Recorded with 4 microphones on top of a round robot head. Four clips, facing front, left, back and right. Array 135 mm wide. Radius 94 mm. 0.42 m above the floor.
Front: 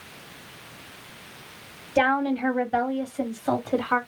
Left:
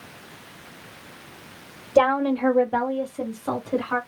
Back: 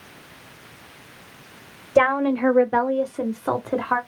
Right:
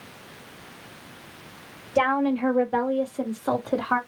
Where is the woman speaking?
150° left, 2.5 m; by 4.0 s 145° right, 2.5 m.